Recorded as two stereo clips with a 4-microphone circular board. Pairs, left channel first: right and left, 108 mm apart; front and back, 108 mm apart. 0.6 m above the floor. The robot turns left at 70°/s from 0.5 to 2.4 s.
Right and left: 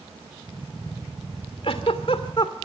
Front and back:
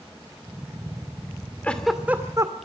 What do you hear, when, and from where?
1.6 s a giggle: 75° right, 2 m; by 2.5 s 125° right, 2 m